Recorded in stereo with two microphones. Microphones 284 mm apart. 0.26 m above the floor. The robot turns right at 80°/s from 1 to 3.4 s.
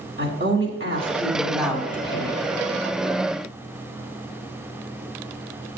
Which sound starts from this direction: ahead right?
A woman speaking, at 0.2 s.